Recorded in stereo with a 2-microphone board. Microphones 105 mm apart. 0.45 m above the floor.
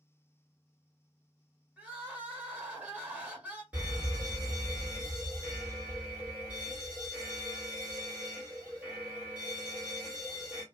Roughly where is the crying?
Centre.